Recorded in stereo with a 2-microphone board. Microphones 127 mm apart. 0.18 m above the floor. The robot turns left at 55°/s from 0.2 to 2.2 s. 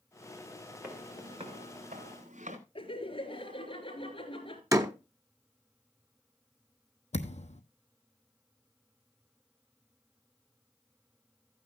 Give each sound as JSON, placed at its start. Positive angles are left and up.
{"t": 0.8, "sound": "footsteps", "side_deg": -5, "distance_m": 4.5}
{"t": 2.8, "sound": "laughter", "side_deg": 45, "distance_m": 4.0}
{"t": 4.7, "sound": "a door slam", "side_deg": -30, "distance_m": 0.9}
{"t": 7.1, "sound": "a thud", "side_deg": 65, "distance_m": 1.0}